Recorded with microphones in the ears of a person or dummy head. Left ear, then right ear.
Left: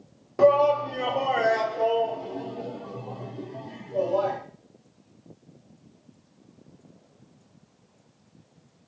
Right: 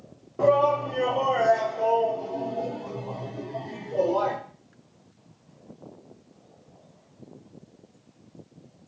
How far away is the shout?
About 0.8 m.